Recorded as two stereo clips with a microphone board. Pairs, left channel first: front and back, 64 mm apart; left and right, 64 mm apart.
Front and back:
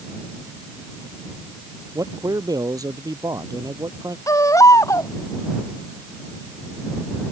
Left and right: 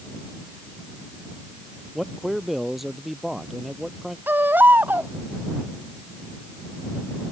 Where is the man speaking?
175° right.